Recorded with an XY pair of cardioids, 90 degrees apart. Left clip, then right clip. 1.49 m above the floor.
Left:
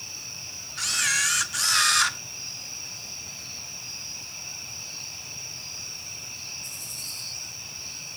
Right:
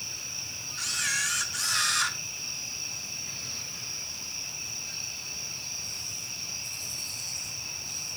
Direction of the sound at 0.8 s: 50° left.